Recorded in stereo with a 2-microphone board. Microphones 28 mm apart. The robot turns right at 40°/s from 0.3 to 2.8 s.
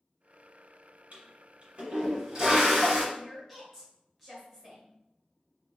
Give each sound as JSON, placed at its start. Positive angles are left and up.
{"t": 1.1, "sound": "a toilet flushing", "azimuth_deg": -70, "distance_m": 1.6}
{"t": 3.1, "sound": "a woman speaking", "side_deg": 0, "distance_m": 1.5}